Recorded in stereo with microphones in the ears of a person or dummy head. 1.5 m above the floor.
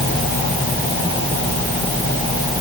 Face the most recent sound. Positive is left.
No sound to turn to.